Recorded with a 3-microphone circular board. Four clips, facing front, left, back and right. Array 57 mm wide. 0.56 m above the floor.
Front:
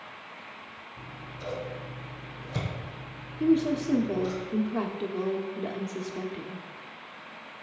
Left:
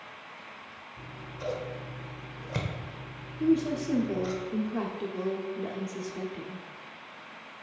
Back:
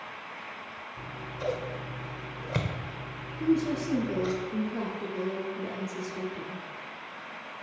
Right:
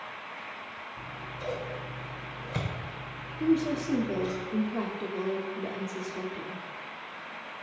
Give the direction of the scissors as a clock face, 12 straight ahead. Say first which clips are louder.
Left 1 dB, back 6 dB; 6 o'clock.